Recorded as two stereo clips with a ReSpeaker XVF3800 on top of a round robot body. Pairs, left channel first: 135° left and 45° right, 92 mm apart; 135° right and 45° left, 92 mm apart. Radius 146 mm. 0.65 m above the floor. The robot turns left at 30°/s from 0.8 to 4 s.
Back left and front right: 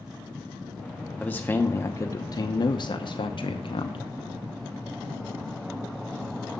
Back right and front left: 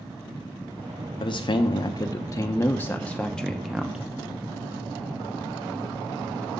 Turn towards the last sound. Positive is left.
turn(degrees=125)